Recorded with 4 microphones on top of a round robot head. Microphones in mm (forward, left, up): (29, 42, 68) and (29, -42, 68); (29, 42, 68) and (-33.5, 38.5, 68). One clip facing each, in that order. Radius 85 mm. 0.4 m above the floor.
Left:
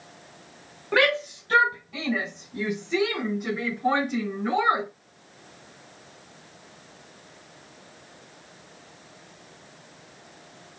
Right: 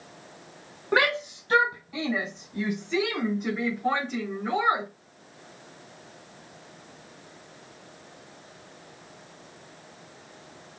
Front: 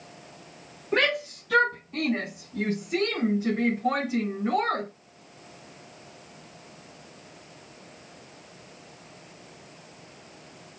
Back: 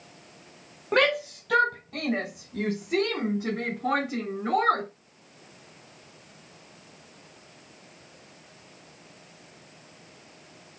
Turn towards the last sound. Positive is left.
turn(degrees=165)